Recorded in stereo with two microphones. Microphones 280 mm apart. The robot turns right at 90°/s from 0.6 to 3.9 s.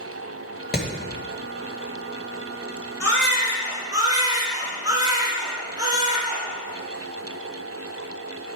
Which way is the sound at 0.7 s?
35° left (ahead or behind).